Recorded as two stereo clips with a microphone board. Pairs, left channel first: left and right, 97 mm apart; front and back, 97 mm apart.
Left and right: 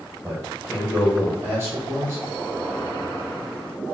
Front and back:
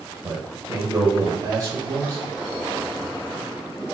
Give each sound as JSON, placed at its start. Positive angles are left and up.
{"t": 0.2, "sound": "a man speaking", "azimuth_deg": -145, "distance_m": 2.0}